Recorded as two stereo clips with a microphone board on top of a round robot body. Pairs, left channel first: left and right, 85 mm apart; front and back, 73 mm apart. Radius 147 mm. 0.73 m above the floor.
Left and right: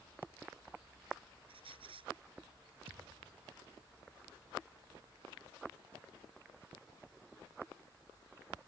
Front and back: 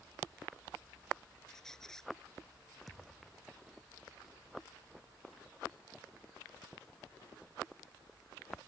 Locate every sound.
1.5 s a squeak: 80° right
2.9 s a thud: 85° right